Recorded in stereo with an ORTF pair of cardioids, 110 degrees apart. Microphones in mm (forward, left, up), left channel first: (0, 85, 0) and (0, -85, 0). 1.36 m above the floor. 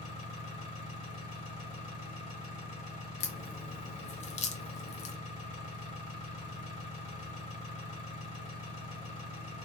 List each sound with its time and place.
0.0 s an engine running: 50° left, 1.6 m
3.2 s a crack: 45° left, 0.5 m